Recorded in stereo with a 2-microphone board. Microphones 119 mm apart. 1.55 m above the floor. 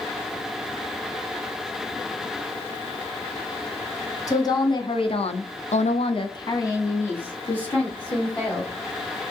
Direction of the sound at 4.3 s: 30° left (ahead or behind).